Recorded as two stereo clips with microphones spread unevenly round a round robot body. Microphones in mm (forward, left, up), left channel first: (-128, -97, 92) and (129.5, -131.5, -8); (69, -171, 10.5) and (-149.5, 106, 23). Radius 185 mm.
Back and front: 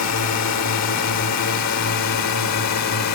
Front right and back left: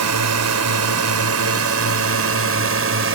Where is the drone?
150° left; by 3.2 s 170° left.